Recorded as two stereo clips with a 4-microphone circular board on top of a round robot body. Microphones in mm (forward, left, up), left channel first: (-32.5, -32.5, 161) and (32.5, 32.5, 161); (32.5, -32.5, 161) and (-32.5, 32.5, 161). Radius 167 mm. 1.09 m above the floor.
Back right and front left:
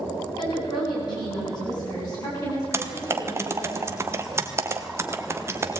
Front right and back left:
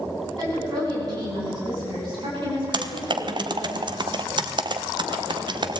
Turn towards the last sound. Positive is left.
turn(degrees=105)